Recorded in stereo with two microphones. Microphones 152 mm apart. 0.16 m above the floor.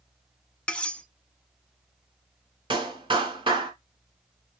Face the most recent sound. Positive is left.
turn(degrees=-35)  # may be behind; listen again after turning